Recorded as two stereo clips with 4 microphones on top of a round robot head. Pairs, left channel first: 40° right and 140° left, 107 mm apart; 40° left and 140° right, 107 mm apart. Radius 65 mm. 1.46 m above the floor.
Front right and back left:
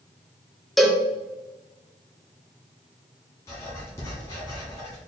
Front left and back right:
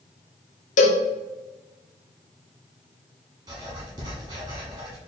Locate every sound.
0.8 s a cowbell: 50° left, 0.6 m
3.5 s writing: 95° right, 1.1 m